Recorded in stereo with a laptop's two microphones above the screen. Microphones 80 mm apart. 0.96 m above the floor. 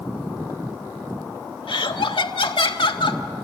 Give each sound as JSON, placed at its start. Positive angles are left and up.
{"t": 1.7, "sound": "laughter", "side_deg": 80, "distance_m": 1.6}